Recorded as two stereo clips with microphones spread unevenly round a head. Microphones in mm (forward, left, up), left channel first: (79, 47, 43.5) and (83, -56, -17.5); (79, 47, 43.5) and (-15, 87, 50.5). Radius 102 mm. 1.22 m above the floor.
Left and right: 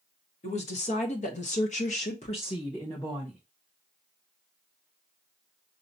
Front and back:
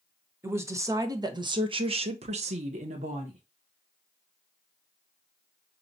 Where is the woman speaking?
90° left, 1.5 m; by 3.4 s straight behind, 1.2 m.